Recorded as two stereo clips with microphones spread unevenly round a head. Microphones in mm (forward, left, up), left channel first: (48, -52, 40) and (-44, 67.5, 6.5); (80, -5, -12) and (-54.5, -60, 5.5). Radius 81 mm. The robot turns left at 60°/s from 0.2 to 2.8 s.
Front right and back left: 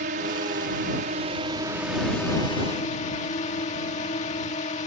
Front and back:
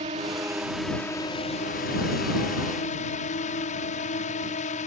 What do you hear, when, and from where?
0.0 s a drone: 150° left; by 4.9 s 5° right